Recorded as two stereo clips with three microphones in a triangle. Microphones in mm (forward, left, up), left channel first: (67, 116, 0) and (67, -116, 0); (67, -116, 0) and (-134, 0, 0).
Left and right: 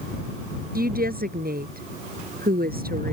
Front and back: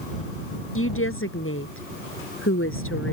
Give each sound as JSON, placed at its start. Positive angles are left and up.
{"t": 0.8, "sound": "a woman speaking", "azimuth_deg": -45}